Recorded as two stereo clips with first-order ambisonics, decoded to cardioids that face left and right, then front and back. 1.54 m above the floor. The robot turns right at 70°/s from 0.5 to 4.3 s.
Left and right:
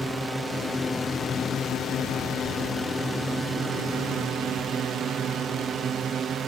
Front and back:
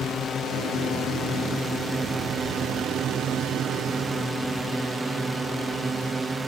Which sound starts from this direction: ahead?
A drone, at 0.0 s.